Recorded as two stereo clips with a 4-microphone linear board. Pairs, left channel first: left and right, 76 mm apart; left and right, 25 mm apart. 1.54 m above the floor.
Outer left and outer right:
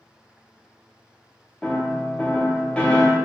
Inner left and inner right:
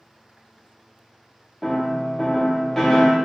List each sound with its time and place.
1.6 s a piano: 15° left (ahead or behind), 0.5 m